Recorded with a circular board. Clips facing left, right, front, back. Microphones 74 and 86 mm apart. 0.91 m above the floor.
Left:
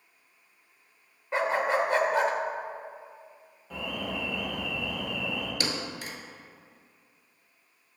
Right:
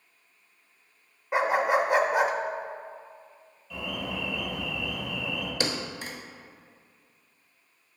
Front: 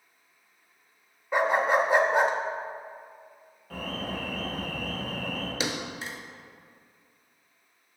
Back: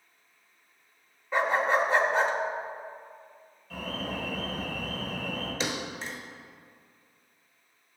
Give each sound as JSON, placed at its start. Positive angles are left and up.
{"t": 1.3, "sound": "a dog barking", "azimuth_deg": -40, "distance_m": 0.6}
{"t": 3.7, "sound": "an alarm", "azimuth_deg": 45, "distance_m": 2.5}
{"t": 5.6, "sound": "a thud", "azimuth_deg": -65, "distance_m": 0.9}